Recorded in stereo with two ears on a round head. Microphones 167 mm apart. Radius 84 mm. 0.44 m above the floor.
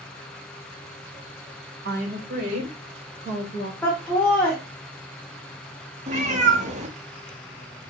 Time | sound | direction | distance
1.9 | a woman speaking | 50° right (ahead or behind) | 1.7 m
3.8 | laughter | 10° left (ahead or behind) | 1.1 m
6.1 | a cat meowing | 35° right (ahead or behind) | 0.8 m